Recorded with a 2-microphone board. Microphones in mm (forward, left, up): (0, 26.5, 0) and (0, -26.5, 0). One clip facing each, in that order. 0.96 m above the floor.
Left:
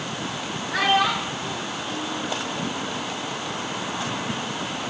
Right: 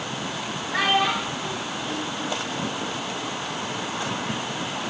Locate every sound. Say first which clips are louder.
0.7 s a child speaking: left 1 dB; 85° left, 9 m